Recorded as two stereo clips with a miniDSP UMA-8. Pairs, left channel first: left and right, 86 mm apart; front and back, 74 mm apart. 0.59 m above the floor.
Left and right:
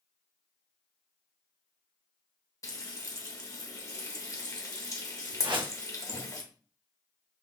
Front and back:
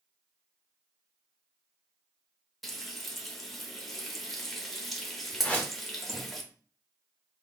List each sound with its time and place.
2.6 s frying: 90° left, 0.9 m
5.4 s a whoosh: 70° right, 0.8 m